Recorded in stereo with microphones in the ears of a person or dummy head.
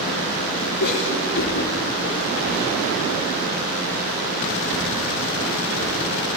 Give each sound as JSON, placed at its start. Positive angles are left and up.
{"t": 0.8, "sound": "a cough", "side_deg": 55, "distance_m": 2.0}